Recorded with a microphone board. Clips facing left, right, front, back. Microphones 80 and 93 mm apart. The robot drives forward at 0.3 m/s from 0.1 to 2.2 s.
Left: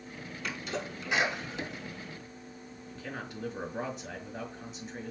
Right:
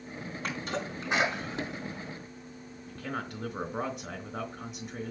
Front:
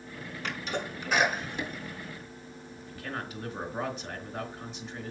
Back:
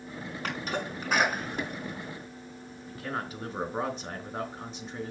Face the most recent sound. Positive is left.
turn(degrees=-125)